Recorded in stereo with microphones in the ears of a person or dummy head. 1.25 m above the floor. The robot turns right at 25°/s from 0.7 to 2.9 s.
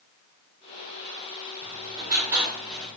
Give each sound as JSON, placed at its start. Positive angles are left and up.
{"t": 1.6, "sound": "writing", "azimuth_deg": -30, "distance_m": 2.0}